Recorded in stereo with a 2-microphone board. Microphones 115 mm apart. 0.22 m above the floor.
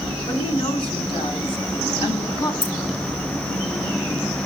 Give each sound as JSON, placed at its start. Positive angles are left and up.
{"t": 0.3, "sound": "a woman speaking", "side_deg": 50, "distance_m": 2.5}
{"t": 2.6, "sound": "keys jangling", "side_deg": -45, "distance_m": 3.0}